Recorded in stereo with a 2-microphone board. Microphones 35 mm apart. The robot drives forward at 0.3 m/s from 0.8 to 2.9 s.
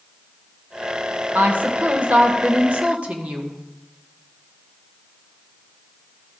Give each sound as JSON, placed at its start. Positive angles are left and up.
{"t": 1.4, "sound": "a woman speaking", "side_deg": -55, "distance_m": 1.2}